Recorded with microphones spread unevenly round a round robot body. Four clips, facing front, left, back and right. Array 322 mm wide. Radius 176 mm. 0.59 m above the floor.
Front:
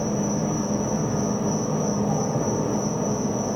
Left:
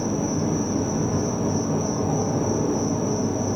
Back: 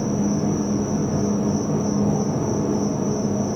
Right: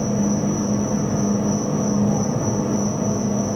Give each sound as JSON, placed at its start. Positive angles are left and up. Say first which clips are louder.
{"t": 0.0, "sound": "an insect", "louder": "right 3 dB, back 3 dB", "azimuth_deg": -105, "distance_m": 1.3}